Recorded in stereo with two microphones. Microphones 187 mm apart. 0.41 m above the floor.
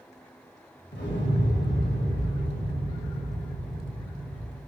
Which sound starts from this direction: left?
An explosion, at 0.9 s.